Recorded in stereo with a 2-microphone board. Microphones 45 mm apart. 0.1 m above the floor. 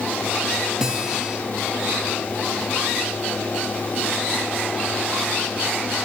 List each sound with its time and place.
0.8 s a guitar: 15° right (ahead or behind), 1.1 m